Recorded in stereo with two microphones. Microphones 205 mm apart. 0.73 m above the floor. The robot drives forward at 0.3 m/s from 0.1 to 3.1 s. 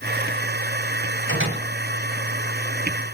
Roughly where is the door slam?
Right.